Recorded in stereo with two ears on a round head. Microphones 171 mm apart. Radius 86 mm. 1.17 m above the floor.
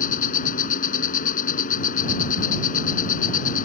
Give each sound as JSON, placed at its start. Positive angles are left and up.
{"t": 0.0, "sound": "an insect", "side_deg": 45}